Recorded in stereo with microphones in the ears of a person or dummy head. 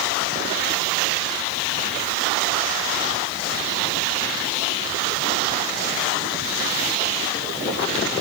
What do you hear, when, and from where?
Only background noise.